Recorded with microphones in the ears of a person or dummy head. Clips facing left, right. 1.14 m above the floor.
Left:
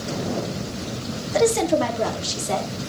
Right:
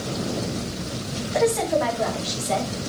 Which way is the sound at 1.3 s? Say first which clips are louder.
Left 2 dB; 50° left (ahead or behind).